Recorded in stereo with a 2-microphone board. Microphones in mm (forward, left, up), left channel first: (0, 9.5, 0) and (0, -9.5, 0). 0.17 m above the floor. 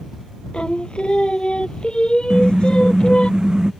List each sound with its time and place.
0.5 s singing: 55° left (ahead or behind)
2.3 s a car horn: 40° right (ahead or behind)